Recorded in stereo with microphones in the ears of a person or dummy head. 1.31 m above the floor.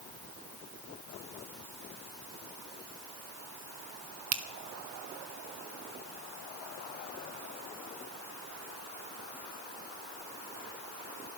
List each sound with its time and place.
4.3 s a finger snap: 40° right (ahead or behind), 1.5 m